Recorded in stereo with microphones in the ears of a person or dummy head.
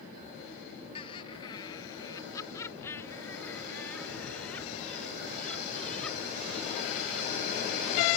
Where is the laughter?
30° left (ahead or behind); by 8.1 s centre (ahead or behind).